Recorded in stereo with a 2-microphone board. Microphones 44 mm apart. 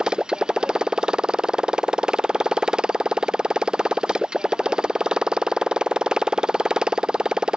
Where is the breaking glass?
No breaking glass in this recording.